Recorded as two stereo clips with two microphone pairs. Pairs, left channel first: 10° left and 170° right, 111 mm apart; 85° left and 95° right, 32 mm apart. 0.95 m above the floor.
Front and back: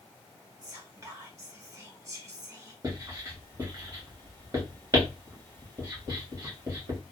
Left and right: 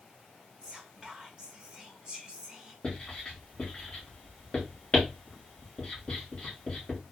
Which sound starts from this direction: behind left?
Writing, at 2.8 s.